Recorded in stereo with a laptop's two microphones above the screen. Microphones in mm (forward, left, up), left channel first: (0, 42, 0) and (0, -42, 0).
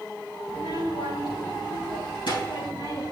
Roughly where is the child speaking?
Left.